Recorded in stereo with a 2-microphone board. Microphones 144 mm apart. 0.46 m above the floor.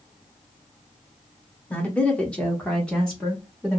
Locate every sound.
1.7 s a woman speaking: 10° left (ahead or behind), 0.8 m; by 3.8 s 5° left (ahead or behind), 1.2 m